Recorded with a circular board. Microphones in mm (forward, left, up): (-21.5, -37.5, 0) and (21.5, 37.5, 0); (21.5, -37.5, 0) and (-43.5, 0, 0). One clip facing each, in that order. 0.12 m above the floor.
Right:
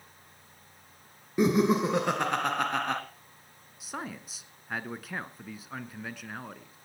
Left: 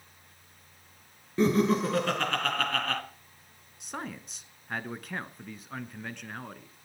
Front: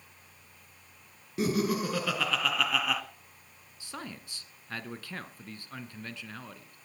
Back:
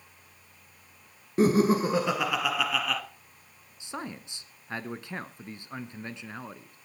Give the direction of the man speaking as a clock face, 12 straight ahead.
7 o'clock.